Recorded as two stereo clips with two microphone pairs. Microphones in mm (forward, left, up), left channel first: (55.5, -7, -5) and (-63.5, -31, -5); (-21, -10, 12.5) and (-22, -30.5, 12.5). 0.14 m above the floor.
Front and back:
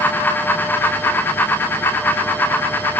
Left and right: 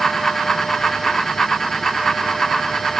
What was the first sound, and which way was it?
Only background noise.